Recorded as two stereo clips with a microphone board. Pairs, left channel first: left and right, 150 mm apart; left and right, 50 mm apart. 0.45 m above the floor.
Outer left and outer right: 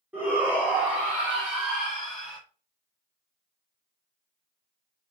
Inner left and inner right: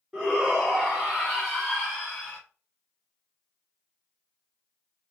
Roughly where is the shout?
Centre.